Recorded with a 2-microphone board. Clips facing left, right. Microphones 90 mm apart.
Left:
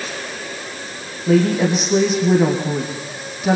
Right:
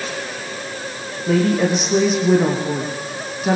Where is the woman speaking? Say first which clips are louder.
Left 1 dB; centre (ahead or behind), 3.5 m.